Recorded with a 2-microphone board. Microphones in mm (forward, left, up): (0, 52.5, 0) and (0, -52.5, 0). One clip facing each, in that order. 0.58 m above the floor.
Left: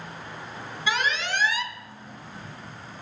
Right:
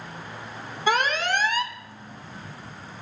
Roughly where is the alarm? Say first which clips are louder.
Right 4 dB; right.